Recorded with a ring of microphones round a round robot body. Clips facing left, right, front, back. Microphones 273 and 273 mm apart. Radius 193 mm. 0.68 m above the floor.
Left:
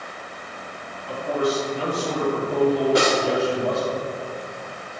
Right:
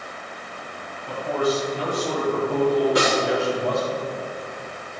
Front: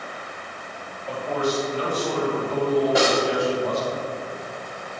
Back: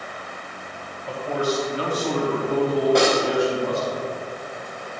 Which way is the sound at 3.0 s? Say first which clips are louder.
Left 1 dB, back 2 dB; 85° left.